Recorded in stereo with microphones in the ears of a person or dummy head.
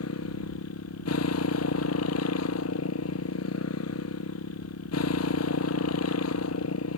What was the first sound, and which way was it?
A motorcycle, 80° left.